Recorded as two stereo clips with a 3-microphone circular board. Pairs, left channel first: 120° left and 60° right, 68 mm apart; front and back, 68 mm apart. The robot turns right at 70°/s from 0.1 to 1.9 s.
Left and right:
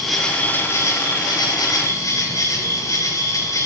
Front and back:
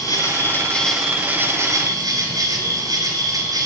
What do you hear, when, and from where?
0.0 s an insect: 25° left, 6 m; by 3.7 s 155° left, 6 m